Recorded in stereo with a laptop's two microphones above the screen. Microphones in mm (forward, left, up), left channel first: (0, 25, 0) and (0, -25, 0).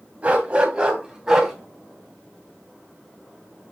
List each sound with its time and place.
0.2 s a dog barking: 30° right (ahead or behind), 2.5 m; by 1.5 s 10° right (ahead or behind), 3 m